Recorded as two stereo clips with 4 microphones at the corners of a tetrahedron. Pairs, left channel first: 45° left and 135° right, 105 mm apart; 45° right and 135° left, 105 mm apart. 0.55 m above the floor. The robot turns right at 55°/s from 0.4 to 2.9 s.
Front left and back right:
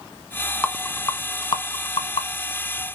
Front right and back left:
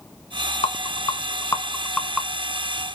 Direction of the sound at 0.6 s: 35° right.